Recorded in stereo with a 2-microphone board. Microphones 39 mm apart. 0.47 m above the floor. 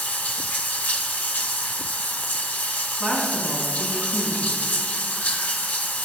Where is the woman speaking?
10° left (ahead or behind), 4.5 m.